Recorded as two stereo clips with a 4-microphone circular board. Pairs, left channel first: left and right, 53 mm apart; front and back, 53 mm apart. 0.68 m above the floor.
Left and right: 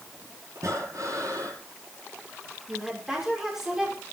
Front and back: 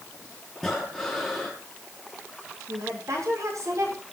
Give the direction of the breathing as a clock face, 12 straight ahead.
3 o'clock.